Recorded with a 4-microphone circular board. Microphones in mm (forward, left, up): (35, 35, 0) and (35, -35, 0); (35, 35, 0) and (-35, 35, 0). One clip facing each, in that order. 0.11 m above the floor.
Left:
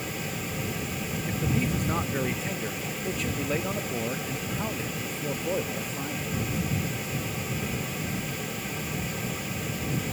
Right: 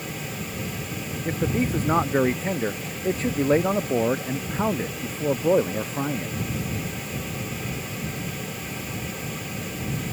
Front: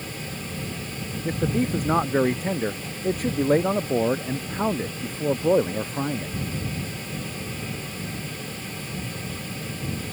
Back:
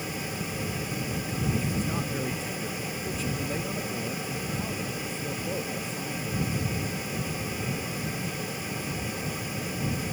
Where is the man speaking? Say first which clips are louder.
Right 5 dB, front 9 dB; 35° right.